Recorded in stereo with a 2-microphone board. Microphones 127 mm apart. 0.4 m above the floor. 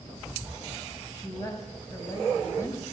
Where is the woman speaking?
30° left (ahead or behind), 3 m.